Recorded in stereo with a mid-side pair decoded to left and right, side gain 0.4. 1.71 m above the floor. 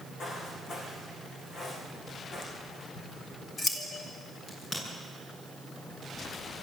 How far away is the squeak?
No squeak in this recording.